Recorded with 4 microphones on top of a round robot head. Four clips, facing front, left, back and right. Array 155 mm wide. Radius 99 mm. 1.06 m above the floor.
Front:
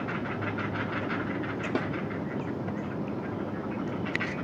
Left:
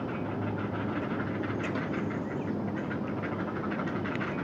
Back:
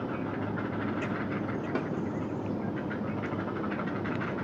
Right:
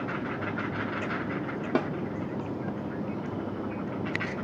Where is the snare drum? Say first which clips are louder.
Right 6 dB, front 3 dB; 80° right.